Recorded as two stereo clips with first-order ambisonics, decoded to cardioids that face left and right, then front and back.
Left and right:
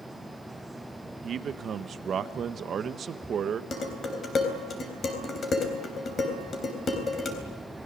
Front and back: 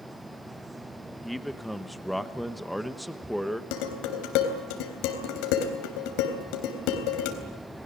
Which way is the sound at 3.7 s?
20° left.